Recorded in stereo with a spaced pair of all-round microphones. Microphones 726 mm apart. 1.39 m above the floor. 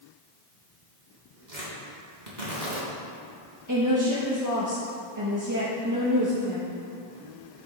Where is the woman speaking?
25° right (ahead or behind), 1.2 m.